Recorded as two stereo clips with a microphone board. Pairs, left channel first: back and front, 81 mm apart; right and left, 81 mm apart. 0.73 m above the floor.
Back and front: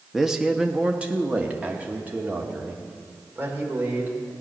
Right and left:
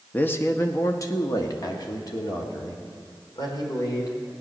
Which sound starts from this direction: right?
A man speaking, at 0.1 s.